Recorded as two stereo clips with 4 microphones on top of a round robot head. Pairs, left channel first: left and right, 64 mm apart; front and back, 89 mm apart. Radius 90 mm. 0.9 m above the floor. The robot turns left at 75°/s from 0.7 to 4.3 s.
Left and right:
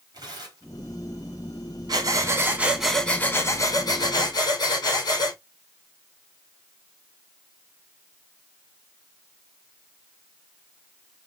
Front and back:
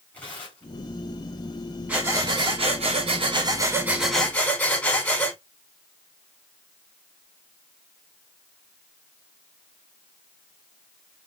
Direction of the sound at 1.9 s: 110° right.